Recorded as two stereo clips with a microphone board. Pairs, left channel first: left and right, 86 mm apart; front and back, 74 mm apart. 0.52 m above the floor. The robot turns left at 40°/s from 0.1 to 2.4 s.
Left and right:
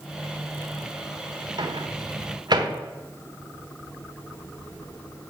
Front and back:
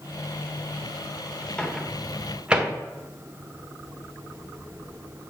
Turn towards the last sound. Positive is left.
turn(degrees=-105)